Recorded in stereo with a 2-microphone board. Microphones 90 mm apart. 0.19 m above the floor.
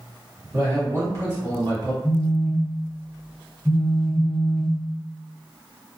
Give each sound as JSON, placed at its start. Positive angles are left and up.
{"t": 0.5, "sound": "a man speaking", "side_deg": -25, "distance_m": 1.9}
{"t": 2.0, "sound": "a phone buzzing", "side_deg": 20, "distance_m": 1.2}